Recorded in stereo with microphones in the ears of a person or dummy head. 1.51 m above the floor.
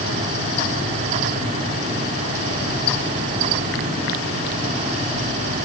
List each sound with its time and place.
Only background noise.